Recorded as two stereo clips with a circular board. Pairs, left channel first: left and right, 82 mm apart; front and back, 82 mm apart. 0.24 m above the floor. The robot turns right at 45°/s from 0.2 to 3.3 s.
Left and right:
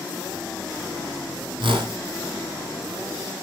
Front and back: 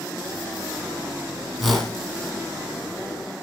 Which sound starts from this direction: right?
A whoosh, at 1.6 s.